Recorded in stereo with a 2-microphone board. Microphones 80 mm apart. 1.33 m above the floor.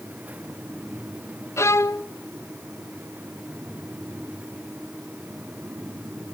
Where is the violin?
40° left (ahead or behind), 0.6 m.